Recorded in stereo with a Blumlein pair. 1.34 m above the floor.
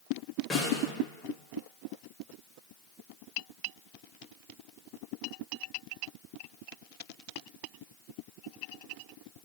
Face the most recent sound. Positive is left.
turn(degrees=20)